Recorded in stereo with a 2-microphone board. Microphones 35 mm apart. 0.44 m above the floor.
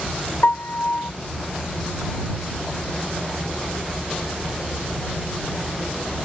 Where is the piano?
60° left (ahead or behind).